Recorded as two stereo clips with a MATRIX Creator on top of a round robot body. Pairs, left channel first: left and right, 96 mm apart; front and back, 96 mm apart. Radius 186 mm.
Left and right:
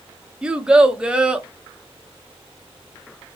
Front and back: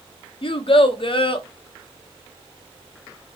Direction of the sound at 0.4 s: 10° right.